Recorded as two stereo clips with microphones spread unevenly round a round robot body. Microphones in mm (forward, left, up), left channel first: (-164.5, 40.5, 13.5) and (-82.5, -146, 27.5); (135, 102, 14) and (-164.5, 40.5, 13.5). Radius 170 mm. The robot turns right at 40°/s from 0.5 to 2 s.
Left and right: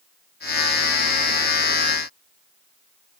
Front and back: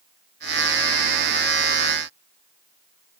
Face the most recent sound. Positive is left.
No sound to turn to.